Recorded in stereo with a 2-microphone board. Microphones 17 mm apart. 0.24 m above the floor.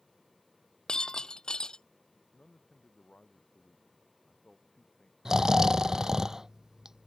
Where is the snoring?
30° right (ahead or behind).